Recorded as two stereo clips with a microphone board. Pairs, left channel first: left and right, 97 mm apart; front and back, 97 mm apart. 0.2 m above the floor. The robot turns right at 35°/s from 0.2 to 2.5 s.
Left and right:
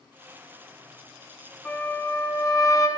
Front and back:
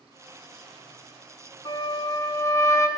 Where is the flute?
20° left, 1.3 m; by 2.9 s 50° left, 1.3 m.